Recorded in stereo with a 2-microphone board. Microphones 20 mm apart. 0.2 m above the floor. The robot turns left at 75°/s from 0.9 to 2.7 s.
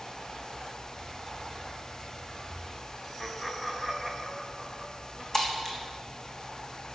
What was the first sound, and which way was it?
Laughter, 10° left (ahead or behind).